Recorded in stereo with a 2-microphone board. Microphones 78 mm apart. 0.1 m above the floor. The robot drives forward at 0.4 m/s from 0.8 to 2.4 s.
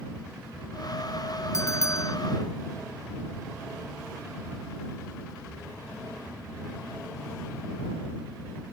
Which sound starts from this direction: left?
A bell, at 1.5 s.